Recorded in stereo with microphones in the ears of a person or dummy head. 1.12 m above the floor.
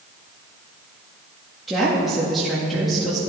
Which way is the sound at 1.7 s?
5° right (ahead or behind).